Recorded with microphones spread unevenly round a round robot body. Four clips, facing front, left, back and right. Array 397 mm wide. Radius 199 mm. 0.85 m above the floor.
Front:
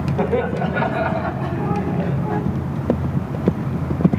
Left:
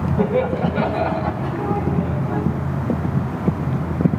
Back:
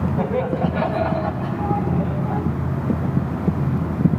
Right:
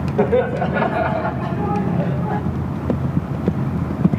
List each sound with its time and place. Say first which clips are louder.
0.2 s laughter: right 3 dB, front 3 dB; 80° right, 3 m; by 2.4 s 95° right, 4.5 m